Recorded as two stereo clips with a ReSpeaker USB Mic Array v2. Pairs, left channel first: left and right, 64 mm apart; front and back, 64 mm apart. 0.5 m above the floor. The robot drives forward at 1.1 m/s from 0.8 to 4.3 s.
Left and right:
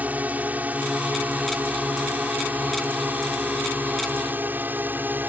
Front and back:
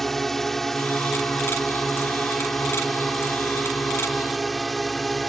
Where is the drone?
80° right; by 5.3 s 85° right.